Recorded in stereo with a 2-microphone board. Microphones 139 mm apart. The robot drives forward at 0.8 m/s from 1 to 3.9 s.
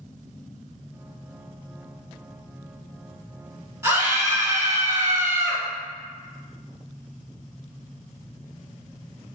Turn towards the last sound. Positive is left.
turn(degrees=-20)  # may be behind; listen again after turning